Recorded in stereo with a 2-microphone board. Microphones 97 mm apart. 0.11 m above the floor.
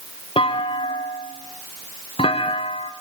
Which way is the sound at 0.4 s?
65° left (ahead or behind).